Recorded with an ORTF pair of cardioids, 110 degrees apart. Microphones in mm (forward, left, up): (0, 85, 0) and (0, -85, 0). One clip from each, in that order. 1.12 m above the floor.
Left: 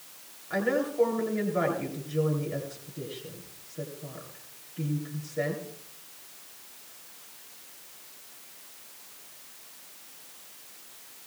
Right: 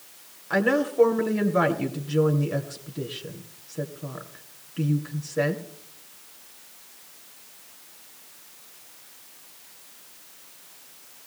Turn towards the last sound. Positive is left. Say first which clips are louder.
# right 5 dB
turn(degrees=-45)